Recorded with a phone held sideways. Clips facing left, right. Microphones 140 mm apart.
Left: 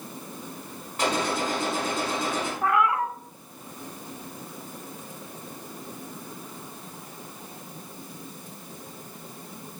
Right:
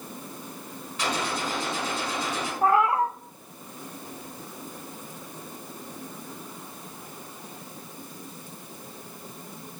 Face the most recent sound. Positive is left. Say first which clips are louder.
# right 3 dB
turn(degrees=-30)  # may be behind; listen again after turning